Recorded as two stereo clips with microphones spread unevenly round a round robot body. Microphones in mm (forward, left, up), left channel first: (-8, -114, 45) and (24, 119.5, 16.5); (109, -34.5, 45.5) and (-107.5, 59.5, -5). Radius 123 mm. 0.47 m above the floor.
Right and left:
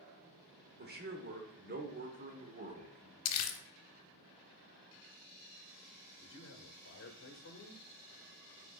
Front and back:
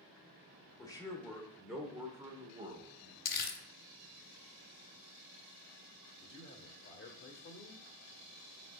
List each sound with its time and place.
0.8 s a man speaking: 55° left, 1.6 m; by 3.1 s 130° left, 1.4 m
3.2 s crumpling: 80° right, 0.8 m
6.2 s a man speaking: 65° right, 1.2 m